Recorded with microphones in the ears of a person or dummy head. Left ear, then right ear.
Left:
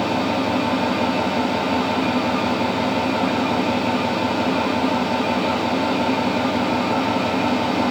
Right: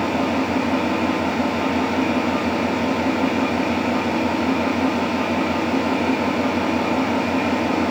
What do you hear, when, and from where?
0.0 s an engine running: 5° right (ahead or behind), 5.5 m